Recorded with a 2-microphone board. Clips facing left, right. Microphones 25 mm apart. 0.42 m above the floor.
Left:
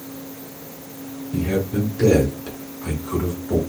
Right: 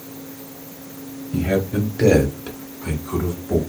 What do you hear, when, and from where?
1.3 s a man speaking: 40° right (ahead or behind), 1.1 m; by 3.6 s 25° left (ahead or behind), 1.1 m